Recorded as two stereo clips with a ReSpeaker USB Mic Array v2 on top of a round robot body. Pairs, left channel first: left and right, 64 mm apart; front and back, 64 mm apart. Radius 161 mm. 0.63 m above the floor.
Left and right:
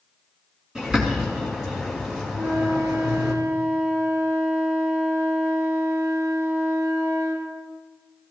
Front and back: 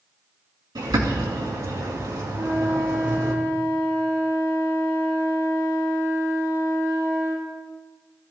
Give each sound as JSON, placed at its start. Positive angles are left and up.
{"t": 0.8, "sound": "a bird", "azimuth_deg": -170, "distance_m": 3.0}
{"t": 2.3, "sound": "a flute", "azimuth_deg": -125, "distance_m": 7.0}